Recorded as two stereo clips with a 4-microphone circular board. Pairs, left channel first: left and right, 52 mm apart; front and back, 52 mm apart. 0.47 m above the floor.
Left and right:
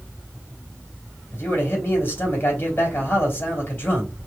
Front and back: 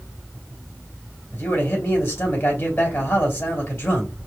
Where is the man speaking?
40° left, 3 m.